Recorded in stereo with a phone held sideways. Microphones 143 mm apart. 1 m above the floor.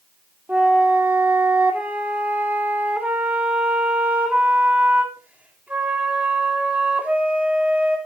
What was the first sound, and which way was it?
A flute, 10° right (ahead or behind).